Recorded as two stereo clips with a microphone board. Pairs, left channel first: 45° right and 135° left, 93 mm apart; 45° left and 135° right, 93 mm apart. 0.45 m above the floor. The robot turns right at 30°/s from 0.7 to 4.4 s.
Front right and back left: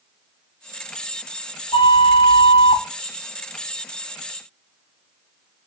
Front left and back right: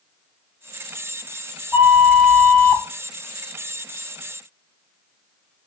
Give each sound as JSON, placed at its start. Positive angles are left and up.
{"t": 1.7, "sound": "a flute", "azimuth_deg": -70, "distance_m": 0.7}